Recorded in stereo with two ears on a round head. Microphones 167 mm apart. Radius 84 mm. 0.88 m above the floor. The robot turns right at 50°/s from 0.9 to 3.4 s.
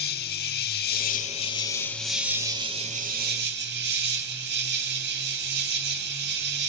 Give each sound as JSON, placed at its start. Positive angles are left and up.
{"t": 0.0, "sound": "an insect", "azimuth_deg": 120, "distance_m": 1.2}